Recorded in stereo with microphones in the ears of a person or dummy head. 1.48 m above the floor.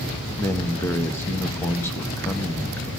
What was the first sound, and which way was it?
A man speaking, 15° left (ahead or behind).